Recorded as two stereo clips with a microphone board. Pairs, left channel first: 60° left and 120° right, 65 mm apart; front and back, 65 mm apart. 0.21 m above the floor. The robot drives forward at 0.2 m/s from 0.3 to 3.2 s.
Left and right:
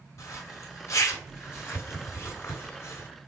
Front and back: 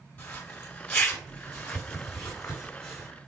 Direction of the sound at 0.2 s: 60° left.